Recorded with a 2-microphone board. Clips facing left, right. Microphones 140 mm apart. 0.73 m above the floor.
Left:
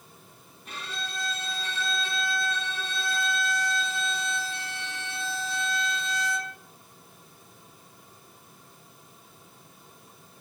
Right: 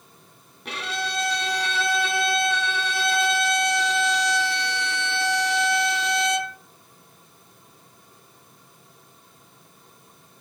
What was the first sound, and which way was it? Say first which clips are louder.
A violin: right 8 dB; 70° right (ahead or behind).